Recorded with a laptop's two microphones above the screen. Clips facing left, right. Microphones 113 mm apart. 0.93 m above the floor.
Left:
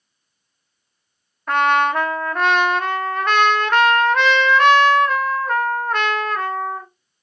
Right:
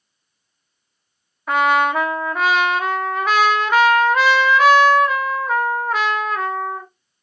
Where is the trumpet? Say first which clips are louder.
Even; 5° right (ahead or behind), 0.7 m.